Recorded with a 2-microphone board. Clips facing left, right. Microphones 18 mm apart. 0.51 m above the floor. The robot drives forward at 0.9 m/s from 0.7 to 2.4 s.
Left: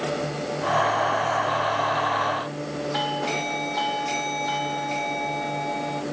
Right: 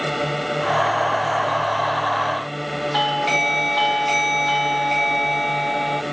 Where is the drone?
50° right (ahead or behind).